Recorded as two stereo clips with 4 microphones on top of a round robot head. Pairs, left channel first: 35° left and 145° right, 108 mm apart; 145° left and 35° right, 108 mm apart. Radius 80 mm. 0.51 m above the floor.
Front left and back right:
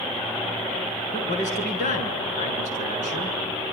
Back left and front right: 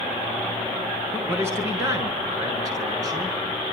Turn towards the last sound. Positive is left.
turn(degrees=25)